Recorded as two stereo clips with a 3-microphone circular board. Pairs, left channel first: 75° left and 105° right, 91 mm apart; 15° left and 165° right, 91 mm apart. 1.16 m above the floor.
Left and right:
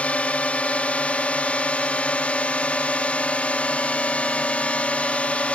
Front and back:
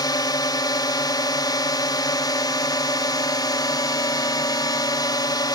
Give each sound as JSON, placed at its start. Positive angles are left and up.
{"t": 0.0, "sound": "a drone", "azimuth_deg": 5}